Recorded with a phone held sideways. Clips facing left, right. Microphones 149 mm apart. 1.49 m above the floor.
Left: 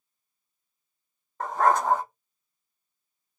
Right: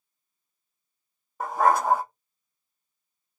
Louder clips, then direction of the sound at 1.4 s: Right 1 dB; 10° right (ahead or behind).